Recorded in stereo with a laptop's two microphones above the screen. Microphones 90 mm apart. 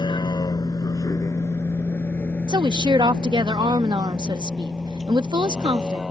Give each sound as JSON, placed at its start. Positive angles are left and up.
{"t": 0.0, "sound": "a vehicle", "side_deg": 55}
{"t": 2.5, "sound": "a woman speaking", "side_deg": -55}